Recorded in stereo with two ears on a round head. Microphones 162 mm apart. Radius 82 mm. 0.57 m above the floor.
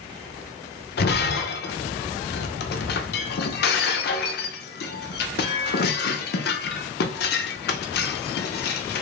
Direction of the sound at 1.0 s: 55° left (ahead or behind).